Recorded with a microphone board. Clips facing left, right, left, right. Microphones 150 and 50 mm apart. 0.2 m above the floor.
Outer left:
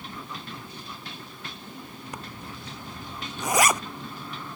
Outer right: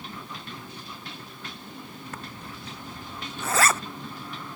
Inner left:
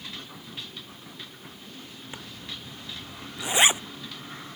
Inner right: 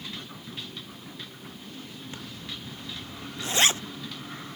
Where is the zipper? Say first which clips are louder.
Outer left 1 dB, inner left 1 dB; 15° left (ahead or behind).